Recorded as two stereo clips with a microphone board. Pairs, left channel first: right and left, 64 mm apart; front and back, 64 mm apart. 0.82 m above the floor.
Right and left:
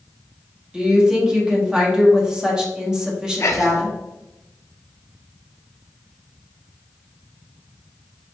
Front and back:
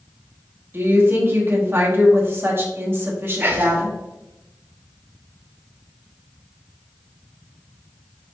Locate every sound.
0.7 s a woman speaking: 160° left, 1.0 m
3.4 s whispering: 125° right, 0.6 m